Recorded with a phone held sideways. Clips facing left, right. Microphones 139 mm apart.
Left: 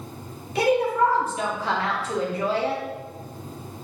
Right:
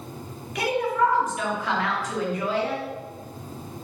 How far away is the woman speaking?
About 0.9 m.